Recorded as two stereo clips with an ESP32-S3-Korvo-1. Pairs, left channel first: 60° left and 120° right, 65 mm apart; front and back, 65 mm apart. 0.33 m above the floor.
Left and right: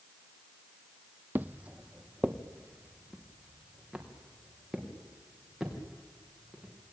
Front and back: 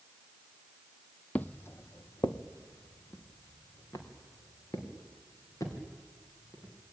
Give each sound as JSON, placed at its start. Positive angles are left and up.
{"t": 1.4, "sound": "footsteps", "azimuth_deg": -70, "distance_m": 0.5}